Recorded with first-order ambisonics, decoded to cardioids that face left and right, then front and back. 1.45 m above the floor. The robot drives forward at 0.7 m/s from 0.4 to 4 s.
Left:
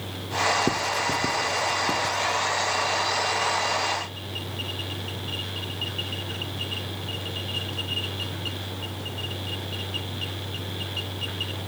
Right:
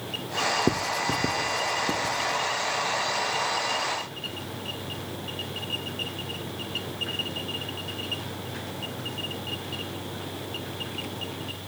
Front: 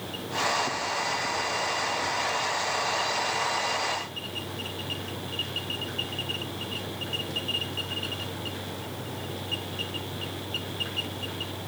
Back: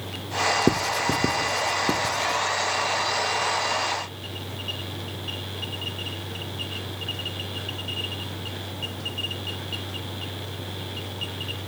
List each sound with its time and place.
0.7 s writing: 175° right, 0.6 m; by 2.4 s straight behind, 1.7 m